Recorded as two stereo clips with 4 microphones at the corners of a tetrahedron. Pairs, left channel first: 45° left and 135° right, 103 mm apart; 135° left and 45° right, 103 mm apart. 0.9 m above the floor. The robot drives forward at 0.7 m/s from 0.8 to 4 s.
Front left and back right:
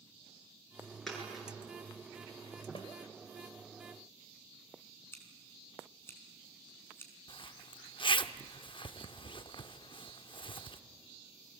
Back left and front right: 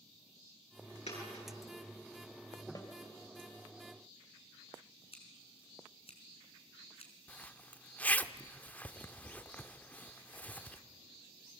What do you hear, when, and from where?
1.1 s a dropped coin: 130° left, 8 m; by 1.5 s 135° left, 8 m
2.8 s a snare drum: 80° left, 3 m; by 2.9 s 85° left, 3 m
5.1 s scissors: 110° left, 4 m
7.3 s a zipper: 60° left, 0.7 m